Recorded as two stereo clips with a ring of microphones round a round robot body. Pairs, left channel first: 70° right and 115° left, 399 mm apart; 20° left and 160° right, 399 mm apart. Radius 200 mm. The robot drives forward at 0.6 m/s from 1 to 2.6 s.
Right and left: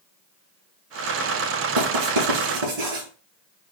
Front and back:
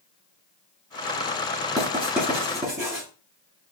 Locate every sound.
1.8 s writing: 120° left, 3.5 m; by 3.0 s 130° left, 3.5 m